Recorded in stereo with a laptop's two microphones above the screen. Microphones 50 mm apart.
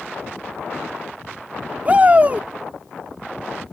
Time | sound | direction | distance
1.9 | a shout | 30° right (ahead or behind) | ?